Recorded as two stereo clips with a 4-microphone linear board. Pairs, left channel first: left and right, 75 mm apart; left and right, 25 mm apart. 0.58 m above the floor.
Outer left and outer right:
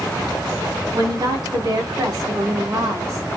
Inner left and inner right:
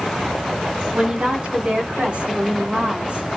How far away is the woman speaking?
About 7 m.